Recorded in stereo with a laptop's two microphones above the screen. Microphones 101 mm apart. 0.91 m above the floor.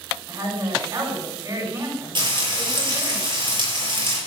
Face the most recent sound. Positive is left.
turn(degrees=-55)  # may be behind; listen again after turning